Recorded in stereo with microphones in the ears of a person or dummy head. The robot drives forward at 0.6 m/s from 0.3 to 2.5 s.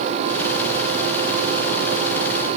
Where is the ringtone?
No ringtone in this recording.